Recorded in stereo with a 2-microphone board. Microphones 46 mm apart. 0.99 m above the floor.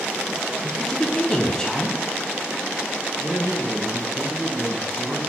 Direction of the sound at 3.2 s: 20° right (ahead or behind).